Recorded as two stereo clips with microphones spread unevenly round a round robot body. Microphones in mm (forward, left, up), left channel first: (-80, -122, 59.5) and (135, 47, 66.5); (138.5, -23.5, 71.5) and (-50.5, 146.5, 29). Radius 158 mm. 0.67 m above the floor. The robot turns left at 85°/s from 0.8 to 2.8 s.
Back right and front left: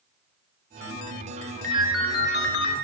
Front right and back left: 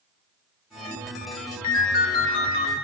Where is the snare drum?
No snare drum in this recording.